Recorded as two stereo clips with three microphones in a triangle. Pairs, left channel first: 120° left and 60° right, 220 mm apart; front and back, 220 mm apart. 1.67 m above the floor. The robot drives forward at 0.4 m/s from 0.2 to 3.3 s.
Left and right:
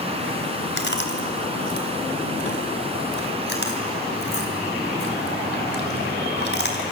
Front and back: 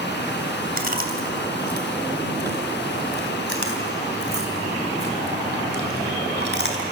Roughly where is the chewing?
Behind left.